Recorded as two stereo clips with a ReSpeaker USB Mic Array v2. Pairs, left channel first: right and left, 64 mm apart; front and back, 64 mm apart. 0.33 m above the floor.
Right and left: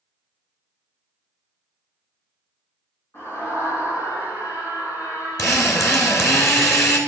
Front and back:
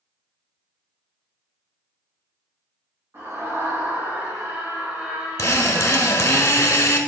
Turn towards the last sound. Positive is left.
turn(degrees=-50)